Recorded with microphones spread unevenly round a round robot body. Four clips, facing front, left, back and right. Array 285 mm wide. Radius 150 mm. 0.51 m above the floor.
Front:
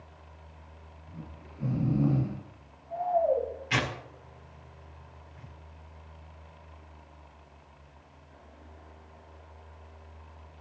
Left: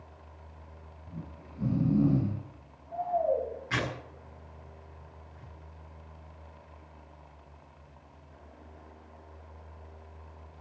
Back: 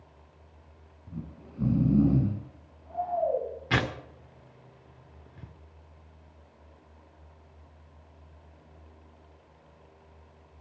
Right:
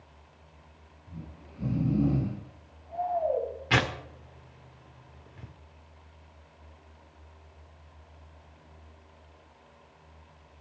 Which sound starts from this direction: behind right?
Tearing paper, at 3.7 s.